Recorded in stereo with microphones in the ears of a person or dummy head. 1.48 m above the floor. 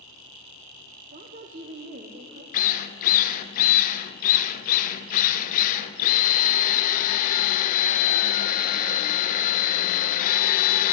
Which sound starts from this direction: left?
A drill, at 2.5 s.